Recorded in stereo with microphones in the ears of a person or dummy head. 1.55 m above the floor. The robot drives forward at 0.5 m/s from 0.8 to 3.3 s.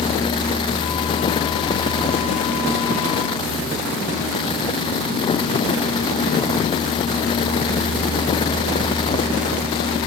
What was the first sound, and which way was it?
Only background noise.